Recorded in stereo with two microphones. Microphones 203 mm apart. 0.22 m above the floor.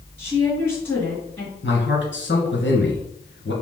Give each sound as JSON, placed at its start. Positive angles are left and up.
{"t": 0.2, "sound": "a woman speaking", "side_deg": 25, "distance_m": 2.5}
{"t": 1.6, "sound": "a man speaking", "side_deg": 65, "distance_m": 2.5}